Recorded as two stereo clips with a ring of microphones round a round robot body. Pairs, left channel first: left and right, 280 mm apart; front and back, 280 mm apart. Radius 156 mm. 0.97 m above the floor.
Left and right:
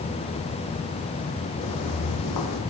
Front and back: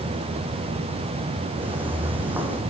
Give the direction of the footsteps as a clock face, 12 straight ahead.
9 o'clock.